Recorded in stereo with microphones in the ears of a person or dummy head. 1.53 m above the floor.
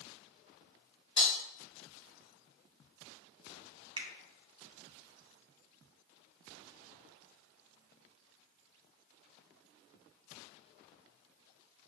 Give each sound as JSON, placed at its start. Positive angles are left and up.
{"t": 1.2, "sound": "breaking glass", "side_deg": -10, "distance_m": 1.0}
{"t": 4.0, "sound": "a finger snap", "side_deg": -25, "distance_m": 0.6}